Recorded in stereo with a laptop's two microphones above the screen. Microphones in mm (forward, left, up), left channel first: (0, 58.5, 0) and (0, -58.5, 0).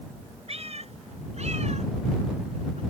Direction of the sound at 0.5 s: 60° right (ahead or behind).